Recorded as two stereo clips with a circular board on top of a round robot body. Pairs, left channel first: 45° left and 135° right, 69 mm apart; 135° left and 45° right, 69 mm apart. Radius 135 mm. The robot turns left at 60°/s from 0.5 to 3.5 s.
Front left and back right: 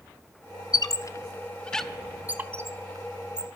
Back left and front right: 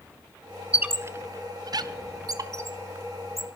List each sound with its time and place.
0.7 s a squeak: 25° left, 1.5 m; by 3.5 s 140° right, 1.5 m